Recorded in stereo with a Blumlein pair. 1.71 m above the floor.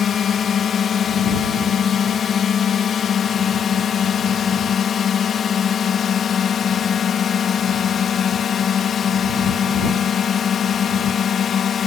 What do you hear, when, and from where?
0.0 s a drone: 25° left